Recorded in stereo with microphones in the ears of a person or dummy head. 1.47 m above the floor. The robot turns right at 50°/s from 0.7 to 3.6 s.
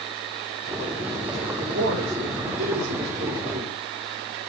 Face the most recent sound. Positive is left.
turn(degrees=-40)